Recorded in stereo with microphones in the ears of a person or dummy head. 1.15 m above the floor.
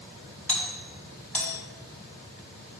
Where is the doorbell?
10° left (ahead or behind), 2.5 m.